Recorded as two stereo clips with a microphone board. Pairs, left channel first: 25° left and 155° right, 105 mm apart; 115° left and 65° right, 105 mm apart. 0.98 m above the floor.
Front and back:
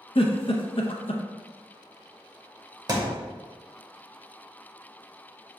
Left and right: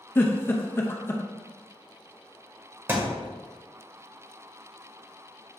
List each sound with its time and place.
0.1 s a giggle: 45° left, 0.6 m
2.9 s a thud: 130° right, 0.8 m